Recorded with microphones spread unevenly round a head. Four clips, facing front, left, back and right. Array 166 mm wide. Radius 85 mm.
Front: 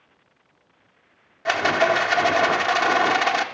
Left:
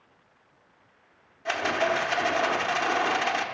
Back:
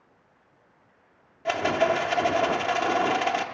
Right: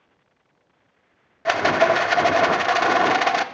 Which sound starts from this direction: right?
A rattle, at 1.4 s.